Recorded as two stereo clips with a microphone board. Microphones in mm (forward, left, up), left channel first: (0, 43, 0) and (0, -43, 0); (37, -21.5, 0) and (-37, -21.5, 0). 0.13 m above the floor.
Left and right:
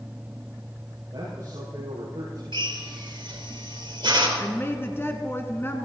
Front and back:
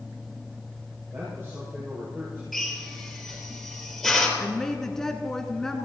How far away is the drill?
About 4 m.